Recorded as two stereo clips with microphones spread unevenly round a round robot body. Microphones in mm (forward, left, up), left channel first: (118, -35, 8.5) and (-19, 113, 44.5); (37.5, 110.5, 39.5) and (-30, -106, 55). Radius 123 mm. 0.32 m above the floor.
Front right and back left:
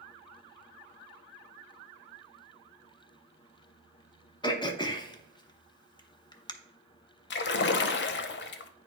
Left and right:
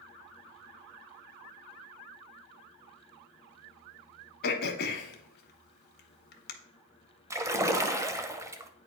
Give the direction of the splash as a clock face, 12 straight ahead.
1 o'clock.